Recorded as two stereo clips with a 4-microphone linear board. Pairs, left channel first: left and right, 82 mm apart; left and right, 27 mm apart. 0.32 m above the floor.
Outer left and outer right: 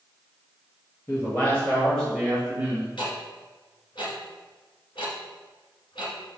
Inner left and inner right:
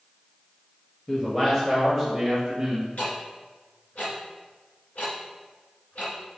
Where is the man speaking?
30° left (ahead or behind), 1.8 m; by 2.9 s 20° right (ahead or behind), 1.9 m.